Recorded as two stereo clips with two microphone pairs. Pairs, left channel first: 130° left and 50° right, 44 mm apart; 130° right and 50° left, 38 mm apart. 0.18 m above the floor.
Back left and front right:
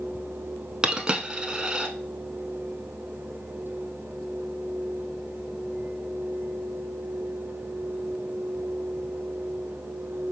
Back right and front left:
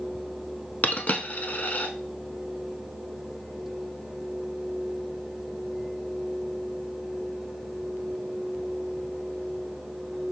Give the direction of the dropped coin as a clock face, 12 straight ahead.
4 o'clock.